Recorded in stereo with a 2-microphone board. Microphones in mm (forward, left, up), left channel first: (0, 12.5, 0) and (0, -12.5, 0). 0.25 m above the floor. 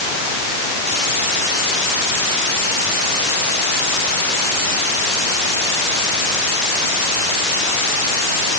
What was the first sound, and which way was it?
Only background noise.